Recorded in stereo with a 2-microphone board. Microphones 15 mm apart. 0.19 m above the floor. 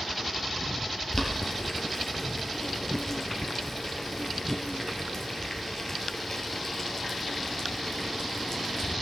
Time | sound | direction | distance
1.1 | boiling | 20° left (ahead or behind) | 2.5 m